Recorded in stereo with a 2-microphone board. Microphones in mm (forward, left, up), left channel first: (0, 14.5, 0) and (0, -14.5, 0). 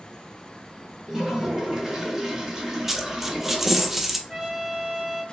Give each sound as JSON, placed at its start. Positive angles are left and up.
{"t": 1.1, "sound": "a toilet flushing", "side_deg": -20, "distance_m": 1.2}
{"t": 2.9, "sound": "a dropped coin", "side_deg": -10, "distance_m": 0.5}
{"t": 4.3, "sound": "a trumpet", "side_deg": -15, "distance_m": 0.7}